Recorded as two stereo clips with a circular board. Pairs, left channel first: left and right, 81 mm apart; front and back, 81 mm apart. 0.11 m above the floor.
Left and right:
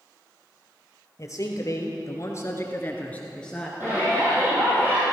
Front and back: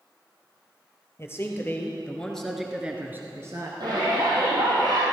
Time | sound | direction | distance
1.2 | a man speaking | 50° left | 2.5 m
3.8 | a shout | 155° right | 3 m